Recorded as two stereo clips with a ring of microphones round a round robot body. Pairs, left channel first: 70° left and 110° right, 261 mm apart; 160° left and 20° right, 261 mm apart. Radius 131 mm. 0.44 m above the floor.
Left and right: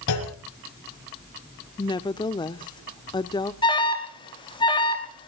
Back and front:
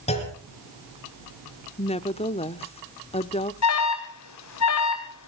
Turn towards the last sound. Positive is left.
turn(degrees=140)